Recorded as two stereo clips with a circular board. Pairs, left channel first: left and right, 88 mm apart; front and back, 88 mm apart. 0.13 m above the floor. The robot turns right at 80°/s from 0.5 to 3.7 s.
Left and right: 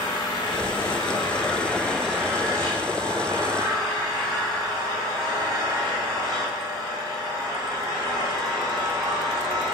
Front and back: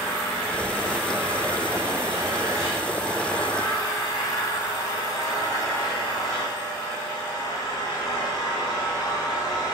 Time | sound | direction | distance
0.0 | an engine running | 65° left | 7.5 m